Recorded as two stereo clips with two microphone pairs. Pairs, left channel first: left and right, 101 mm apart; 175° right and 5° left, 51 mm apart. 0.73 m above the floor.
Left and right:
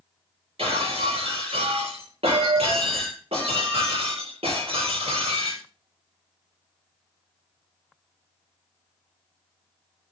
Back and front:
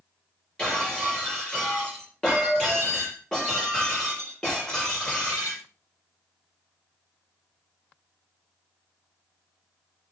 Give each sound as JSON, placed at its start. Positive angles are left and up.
{"t": 0.6, "sound": "breaking glass", "azimuth_deg": -100, "distance_m": 7.5}